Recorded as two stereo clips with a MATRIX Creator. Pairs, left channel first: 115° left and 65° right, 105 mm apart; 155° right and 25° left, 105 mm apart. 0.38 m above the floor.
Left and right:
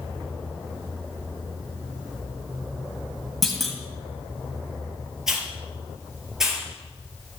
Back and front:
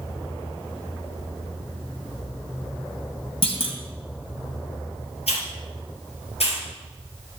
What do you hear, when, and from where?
3.4 s a clunk: 160° right, 2.5 m
5.3 s a hiss: 155° right, 4.5 m